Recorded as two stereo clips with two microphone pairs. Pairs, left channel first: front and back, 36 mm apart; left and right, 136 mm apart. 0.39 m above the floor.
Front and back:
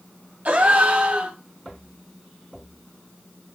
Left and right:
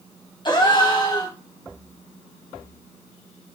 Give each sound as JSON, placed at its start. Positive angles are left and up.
{"t": 0.5, "sound": "a gasp", "azimuth_deg": 145, "distance_m": 2.5}